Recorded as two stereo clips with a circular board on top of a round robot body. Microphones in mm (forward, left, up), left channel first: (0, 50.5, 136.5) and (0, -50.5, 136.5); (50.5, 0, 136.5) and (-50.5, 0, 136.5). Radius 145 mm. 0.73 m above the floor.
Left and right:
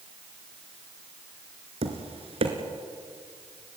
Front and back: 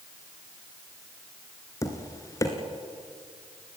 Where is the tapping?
60° right, 1.8 m.